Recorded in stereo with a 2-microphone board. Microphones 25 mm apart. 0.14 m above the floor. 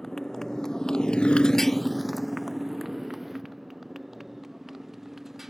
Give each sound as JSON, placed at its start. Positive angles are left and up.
{"t": 0.0, "sound": "a motorcycle", "side_deg": 15}